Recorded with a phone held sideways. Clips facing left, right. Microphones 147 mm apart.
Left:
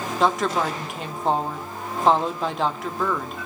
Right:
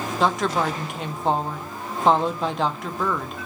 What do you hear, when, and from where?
0.2 s a woman speaking: centre (ahead or behind), 0.6 m